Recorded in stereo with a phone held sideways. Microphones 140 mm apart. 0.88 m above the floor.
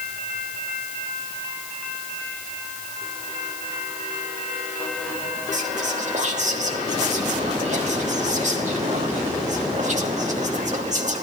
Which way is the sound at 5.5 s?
60° right (ahead or behind).